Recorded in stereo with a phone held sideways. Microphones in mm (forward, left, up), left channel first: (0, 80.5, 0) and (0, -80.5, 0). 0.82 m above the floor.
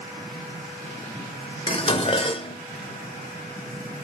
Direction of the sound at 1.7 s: 35° left (ahead or behind).